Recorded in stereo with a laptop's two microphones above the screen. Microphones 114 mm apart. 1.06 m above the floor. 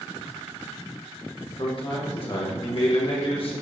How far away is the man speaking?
About 1.1 m.